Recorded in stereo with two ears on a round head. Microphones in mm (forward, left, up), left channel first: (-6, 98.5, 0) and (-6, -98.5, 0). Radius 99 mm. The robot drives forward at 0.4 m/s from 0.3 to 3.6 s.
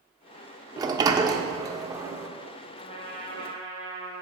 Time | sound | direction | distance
0.8 | a sliding door | 20° right (ahead or behind) | 0.5 m
2.8 | a trumpet | 30° left (ahead or behind) | 1.3 m